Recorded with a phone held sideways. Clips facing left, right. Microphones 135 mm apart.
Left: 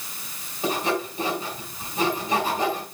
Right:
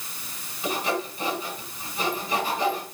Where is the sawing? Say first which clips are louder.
Left 2 dB; 45° left (ahead or behind), 4.5 m.